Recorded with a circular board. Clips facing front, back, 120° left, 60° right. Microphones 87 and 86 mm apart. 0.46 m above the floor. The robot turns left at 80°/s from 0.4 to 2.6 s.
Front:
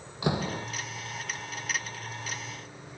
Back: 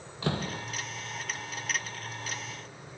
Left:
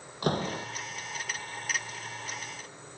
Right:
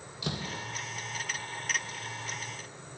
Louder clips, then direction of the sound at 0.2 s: Front 3 dB, left 8 dB; 75° left.